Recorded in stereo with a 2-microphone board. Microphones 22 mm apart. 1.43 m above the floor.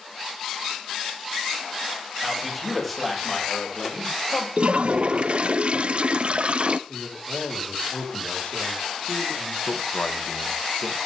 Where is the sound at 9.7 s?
80° left, 2 m.